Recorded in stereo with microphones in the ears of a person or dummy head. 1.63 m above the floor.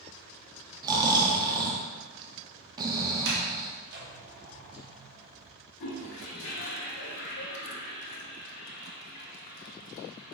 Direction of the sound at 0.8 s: 20° right (ahead or behind).